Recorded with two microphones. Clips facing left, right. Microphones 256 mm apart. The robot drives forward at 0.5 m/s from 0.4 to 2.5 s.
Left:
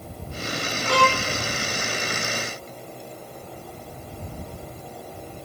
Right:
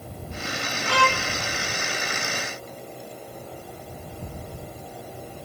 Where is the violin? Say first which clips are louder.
Left 4 dB; 45° left (ahead or behind), 0.6 m; by 1.3 s 60° left (ahead or behind), 0.5 m.